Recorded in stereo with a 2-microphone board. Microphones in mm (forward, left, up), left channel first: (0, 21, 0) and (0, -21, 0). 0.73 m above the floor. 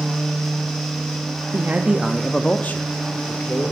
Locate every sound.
1.5 s a man speaking: 50° right (ahead or behind), 1.0 m; by 3.7 s 65° left (ahead or behind), 2.5 m